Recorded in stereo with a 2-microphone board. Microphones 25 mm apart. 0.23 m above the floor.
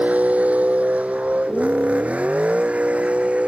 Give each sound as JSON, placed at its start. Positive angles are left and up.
{"t": 0.0, "sound": "a vehicle", "side_deg": -70}